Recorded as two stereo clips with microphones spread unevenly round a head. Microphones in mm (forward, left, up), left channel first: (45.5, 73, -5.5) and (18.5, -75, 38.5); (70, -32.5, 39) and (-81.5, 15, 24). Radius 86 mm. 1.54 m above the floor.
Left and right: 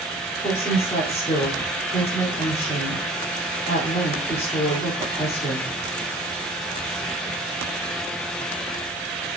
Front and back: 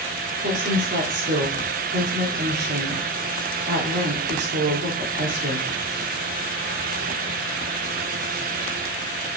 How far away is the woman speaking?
About 3.5 m.